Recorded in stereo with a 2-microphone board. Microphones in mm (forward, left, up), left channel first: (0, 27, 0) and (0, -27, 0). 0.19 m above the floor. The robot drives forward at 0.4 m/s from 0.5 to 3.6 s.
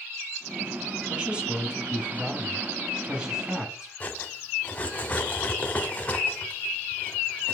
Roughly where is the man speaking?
Centre.